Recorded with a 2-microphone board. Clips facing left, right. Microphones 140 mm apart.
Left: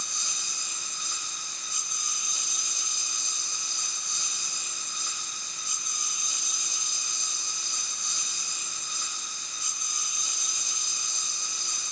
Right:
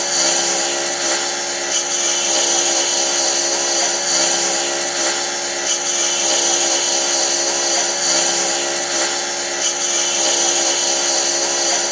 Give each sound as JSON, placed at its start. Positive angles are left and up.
{"t": 0.0, "sound": "a lawn mower", "side_deg": -80}